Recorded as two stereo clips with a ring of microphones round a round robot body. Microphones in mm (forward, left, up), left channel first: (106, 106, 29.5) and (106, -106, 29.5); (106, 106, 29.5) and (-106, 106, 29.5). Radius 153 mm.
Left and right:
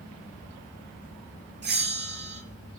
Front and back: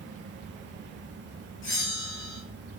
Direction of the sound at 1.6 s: 55° right.